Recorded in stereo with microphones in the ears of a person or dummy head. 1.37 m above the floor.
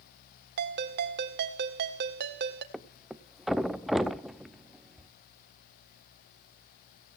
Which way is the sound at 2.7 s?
5° right (ahead or behind).